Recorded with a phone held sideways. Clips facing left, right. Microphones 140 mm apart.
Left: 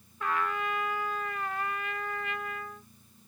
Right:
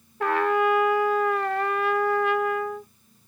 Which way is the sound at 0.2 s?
80° right.